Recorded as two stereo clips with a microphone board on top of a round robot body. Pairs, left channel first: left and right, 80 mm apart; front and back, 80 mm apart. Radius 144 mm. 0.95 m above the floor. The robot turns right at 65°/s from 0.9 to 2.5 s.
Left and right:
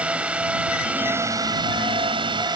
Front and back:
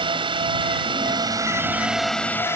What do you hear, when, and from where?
0.0 s a drone: 165° right; by 2.6 s 60° right